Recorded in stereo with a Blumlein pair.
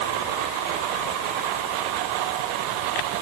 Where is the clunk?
No clunk in this recording.